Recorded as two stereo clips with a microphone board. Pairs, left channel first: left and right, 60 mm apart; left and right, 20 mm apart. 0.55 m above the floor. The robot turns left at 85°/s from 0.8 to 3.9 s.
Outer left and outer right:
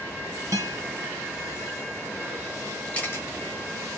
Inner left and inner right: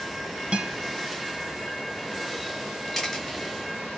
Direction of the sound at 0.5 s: 60° right (ahead or behind).